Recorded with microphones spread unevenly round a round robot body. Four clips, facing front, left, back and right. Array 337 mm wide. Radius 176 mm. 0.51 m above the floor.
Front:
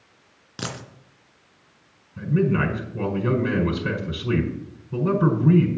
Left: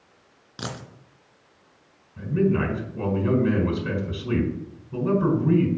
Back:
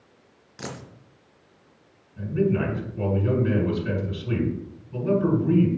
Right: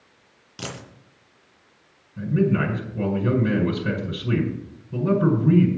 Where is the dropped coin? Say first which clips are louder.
Left 1 dB, front 3 dB; 10° left, 3 m.